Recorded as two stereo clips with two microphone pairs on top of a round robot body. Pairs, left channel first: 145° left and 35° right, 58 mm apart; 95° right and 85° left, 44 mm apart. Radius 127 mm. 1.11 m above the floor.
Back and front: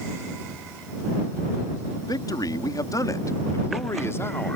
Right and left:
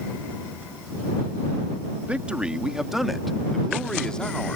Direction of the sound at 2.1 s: 150° left.